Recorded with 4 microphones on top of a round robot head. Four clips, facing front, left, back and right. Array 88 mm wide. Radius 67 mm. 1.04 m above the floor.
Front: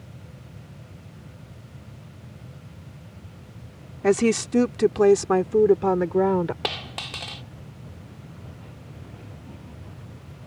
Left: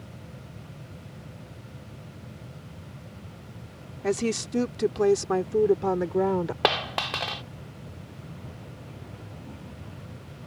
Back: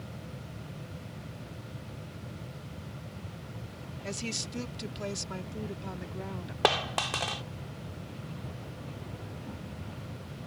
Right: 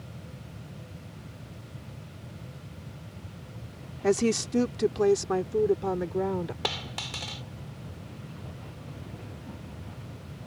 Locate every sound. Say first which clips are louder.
4.0 s a woman speaking: right 2 dB, front 20 dB; 10° right; by 6.5 s 20° left
6.6 s a dropped coin: left 9 dB, back 4 dB; 115° left